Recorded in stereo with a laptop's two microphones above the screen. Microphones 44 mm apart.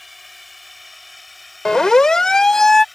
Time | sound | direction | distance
0.0 | a drone | centre (ahead or behind) | ?
1.6 | a siren | 15° left (ahead or behind) | ?